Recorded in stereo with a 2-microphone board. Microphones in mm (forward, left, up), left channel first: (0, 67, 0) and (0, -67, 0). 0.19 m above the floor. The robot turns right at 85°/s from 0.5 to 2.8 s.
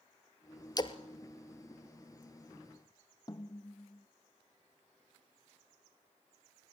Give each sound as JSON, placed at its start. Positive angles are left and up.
{"t": 0.8, "sound": "a splash", "side_deg": 30, "distance_m": 0.9}
{"t": 3.3, "sound": "a snare drum", "side_deg": 30, "distance_m": 1.3}